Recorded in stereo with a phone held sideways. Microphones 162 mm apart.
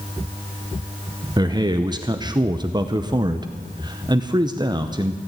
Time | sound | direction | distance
1.4 | a man speaking | 25° right (ahead or behind) | 0.7 m